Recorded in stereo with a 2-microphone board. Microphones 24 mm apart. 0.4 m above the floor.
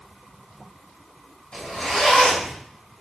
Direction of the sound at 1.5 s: 50° left (ahead or behind).